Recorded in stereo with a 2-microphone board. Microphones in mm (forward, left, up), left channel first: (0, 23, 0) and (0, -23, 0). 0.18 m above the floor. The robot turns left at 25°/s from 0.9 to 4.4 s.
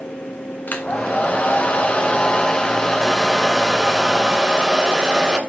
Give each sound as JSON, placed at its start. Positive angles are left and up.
{"t": 0.7, "sound": "a hair dryer", "azimuth_deg": 65, "distance_m": 1.5}